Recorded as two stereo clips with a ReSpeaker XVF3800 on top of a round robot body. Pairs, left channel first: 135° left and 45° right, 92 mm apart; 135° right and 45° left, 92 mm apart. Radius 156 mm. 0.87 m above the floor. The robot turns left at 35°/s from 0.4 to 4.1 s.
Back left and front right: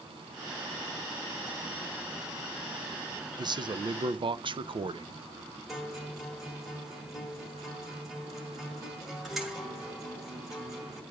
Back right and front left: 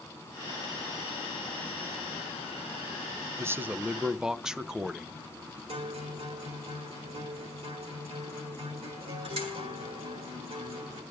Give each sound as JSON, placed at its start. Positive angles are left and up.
{"t": 3.4, "sound": "a man speaking", "azimuth_deg": -15, "distance_m": 0.7}
{"t": 5.7, "sound": "a guitar", "azimuth_deg": 40, "distance_m": 2.5}